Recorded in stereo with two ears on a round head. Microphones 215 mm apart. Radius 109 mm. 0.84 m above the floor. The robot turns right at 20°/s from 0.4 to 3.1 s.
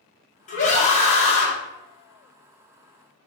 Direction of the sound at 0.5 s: 35° left (ahead or behind).